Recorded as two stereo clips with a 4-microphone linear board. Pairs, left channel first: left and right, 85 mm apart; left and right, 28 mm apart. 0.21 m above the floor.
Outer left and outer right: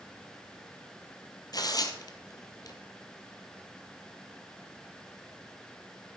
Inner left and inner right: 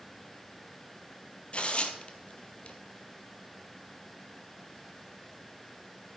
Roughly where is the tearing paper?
Left.